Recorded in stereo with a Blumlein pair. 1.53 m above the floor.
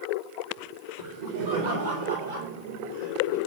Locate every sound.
1.0 s laughter: 65° right, 5 m; by 3.4 s 80° right, 4.5 m